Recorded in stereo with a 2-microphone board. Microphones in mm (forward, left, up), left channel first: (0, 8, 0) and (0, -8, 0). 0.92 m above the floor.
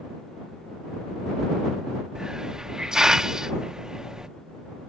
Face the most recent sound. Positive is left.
turn(degrees=-45)  # may be behind; listen again after turning